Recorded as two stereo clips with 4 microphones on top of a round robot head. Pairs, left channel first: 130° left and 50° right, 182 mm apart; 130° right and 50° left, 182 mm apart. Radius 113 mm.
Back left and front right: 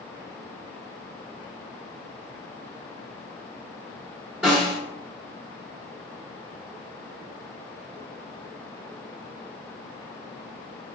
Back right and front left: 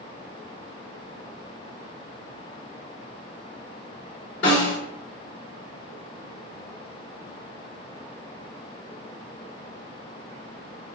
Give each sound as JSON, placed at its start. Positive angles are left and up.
{"t": 4.4, "sound": "a snare drum", "azimuth_deg": -130, "distance_m": 0.9}